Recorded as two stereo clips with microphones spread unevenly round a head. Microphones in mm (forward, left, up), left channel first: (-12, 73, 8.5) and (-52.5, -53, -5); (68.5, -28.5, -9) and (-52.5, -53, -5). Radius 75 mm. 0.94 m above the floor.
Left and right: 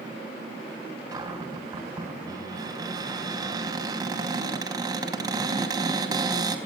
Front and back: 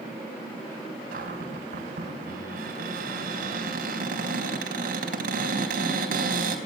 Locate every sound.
1.1 s a cupboard door: 170° right, 4 m